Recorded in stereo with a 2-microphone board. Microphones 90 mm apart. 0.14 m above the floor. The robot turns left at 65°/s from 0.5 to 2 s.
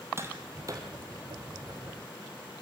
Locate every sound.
0.2 s tapping: 30° right (ahead or behind), 3 m; by 0.9 s 55° right (ahead or behind), 3 m